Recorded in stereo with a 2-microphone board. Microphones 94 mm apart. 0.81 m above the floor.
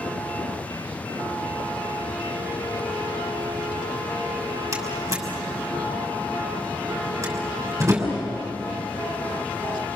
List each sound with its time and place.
4.7 s a door slam: 35° right (ahead or behind), 5.5 m